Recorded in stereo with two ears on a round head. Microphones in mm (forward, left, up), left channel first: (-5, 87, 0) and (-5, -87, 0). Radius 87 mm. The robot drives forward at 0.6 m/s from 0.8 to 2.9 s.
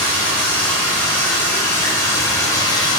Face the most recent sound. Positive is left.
turn(degrees=20)  # may be behind; listen again after turning